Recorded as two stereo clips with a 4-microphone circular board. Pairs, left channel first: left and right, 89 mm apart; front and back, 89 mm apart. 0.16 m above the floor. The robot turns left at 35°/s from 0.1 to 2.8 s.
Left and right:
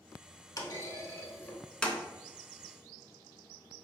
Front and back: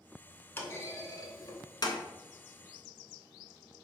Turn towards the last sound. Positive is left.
turn(degrees=-20)